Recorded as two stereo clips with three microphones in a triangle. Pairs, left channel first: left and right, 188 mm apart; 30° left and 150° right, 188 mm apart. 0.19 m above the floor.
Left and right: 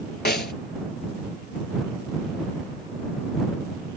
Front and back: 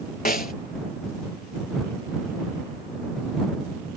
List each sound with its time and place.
0.2 s a snare drum: 65° left